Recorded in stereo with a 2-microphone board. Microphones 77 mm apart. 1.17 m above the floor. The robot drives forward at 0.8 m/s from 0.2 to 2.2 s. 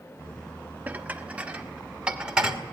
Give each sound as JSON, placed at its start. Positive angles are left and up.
{"t": 0.9, "sound": "dishes clattering", "side_deg": -20, "distance_m": 1.3}